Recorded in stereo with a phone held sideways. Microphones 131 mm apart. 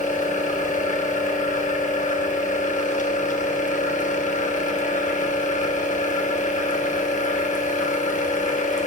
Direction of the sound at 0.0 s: 70° left (ahead or behind).